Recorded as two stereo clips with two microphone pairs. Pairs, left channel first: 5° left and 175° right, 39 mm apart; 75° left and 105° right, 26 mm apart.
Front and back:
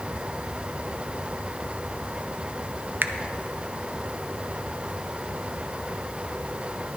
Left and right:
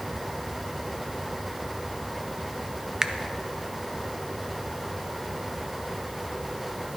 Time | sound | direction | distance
3.0 | a finger snap | 165° right | 0.7 m